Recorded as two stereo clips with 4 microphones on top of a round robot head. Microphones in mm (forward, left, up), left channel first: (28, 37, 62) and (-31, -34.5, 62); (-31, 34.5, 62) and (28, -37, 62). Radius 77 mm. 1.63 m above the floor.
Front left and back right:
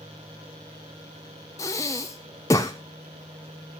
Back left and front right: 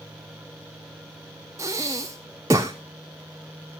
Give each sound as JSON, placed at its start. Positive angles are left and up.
{"t": 1.6, "sound": "breathing", "azimuth_deg": 0, "distance_m": 0.7}